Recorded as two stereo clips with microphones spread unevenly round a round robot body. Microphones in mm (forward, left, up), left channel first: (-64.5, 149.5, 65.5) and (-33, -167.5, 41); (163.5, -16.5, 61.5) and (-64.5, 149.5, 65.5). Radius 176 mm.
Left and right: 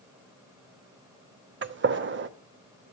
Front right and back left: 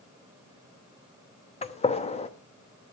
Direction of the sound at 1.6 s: 90° right.